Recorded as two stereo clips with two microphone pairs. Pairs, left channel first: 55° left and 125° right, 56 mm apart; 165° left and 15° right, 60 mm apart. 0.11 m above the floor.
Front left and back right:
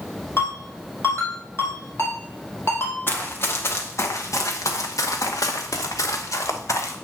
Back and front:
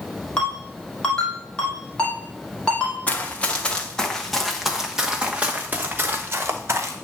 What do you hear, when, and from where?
0.4 s a ringtone: 90° left, 3 m
3.1 s running footsteps: 100° left, 1.6 m; by 7.0 s 25° left, 1.6 m